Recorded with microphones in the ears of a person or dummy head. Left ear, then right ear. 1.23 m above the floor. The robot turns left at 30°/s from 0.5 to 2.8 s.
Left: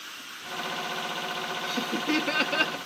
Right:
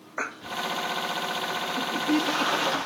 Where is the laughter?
100° left, 1.0 m; by 2.8 s 65° left, 1.0 m.